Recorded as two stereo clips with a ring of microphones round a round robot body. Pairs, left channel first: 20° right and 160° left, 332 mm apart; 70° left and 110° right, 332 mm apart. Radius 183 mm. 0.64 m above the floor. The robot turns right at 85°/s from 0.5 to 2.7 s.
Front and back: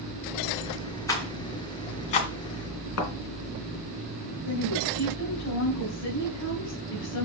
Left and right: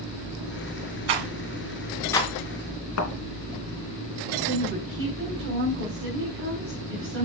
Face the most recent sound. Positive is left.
turn(degrees=-60)